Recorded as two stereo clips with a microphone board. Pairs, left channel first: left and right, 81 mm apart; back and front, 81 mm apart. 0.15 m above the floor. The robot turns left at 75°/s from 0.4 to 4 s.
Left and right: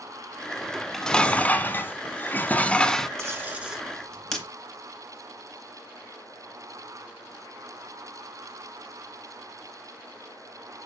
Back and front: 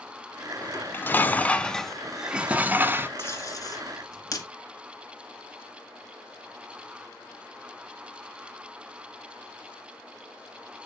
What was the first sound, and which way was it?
Dishes clattering, 165° right.